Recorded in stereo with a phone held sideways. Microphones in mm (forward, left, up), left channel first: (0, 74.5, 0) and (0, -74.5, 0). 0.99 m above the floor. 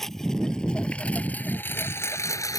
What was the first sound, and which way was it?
A lawn mower, centre (ahead or behind).